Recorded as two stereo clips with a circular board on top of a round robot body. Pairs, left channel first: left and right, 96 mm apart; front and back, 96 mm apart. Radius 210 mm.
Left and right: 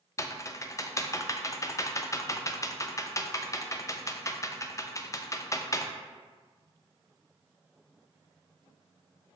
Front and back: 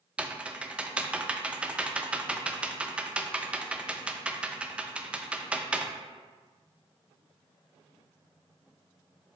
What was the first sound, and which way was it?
Typing on a keyboard, 110° left.